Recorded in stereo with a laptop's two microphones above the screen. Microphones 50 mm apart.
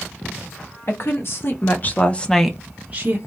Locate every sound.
0.9 s a woman speaking: 55° left (ahead or behind), 1.4 m; by 3.2 s 35° right (ahead or behind), 0.8 m